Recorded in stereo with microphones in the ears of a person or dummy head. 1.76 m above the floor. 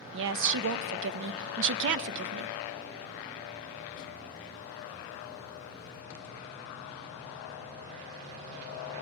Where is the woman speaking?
65° right (ahead or behind), 0.6 m.